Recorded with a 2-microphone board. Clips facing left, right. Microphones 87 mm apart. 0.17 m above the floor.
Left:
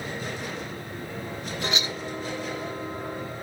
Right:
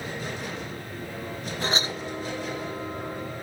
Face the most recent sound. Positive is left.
turn(degrees=-35)  # may be behind; listen again after turning